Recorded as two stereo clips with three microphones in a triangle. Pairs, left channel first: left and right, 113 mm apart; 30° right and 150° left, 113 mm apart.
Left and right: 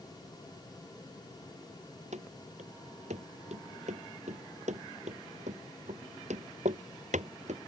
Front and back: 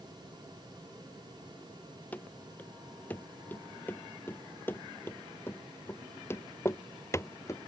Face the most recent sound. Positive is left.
turn(degrees=-95)